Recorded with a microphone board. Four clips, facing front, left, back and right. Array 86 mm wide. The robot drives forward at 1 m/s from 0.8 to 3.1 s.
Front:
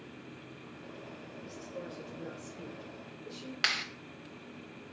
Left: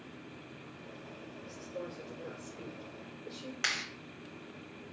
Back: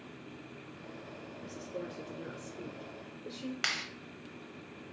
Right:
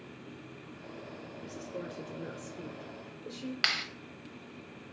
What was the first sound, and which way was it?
A woman speaking, 115° right.